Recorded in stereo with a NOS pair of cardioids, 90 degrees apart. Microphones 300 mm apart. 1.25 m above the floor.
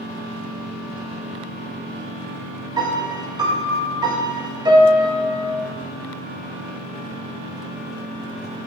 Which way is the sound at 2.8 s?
15° right.